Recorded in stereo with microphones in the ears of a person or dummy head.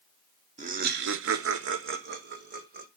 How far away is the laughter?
About 0.8 m.